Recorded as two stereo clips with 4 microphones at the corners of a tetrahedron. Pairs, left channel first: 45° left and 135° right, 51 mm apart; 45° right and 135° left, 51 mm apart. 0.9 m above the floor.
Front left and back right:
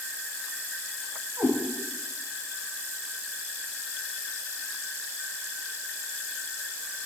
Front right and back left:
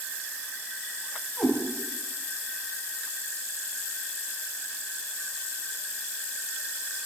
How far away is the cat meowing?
About 2.5 m.